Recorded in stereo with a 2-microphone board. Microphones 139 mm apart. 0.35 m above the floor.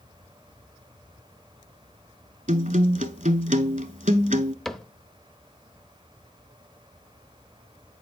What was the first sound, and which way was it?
A guitar, 75° right (ahead or behind).